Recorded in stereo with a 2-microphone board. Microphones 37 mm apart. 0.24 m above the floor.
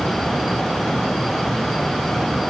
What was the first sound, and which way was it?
Only background noise.